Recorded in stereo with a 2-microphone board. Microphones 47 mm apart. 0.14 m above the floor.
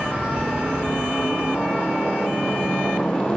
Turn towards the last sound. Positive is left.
turn(degrees=20)  # may be behind; listen again after turning